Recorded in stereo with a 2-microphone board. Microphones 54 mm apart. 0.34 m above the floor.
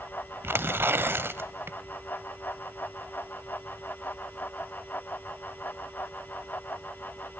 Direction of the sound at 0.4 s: 45° right (ahead or behind).